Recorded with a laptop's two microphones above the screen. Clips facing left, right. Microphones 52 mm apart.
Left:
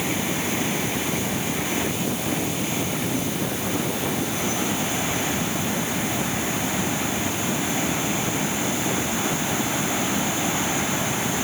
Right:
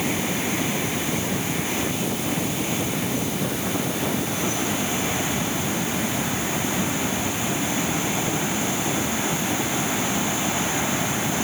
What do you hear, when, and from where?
Only background noise.